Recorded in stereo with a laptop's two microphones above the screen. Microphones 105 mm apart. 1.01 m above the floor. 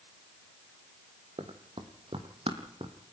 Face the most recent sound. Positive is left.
turn(degrees=-60)  # may be behind; listen again after turning